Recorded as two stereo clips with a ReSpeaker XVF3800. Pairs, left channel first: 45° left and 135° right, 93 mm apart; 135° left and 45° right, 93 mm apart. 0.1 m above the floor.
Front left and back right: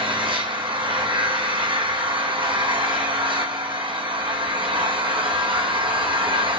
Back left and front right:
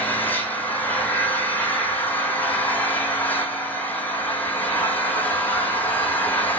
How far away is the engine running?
About 2 m.